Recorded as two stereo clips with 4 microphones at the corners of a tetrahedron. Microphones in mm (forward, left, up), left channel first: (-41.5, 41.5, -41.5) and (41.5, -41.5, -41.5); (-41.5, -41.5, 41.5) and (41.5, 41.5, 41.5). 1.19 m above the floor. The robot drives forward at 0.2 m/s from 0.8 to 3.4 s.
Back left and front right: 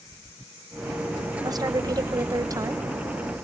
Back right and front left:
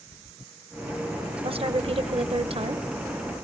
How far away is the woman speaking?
About 0.9 m.